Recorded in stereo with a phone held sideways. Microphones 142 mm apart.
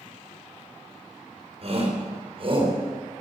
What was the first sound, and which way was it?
A shout, 50° right (ahead or behind).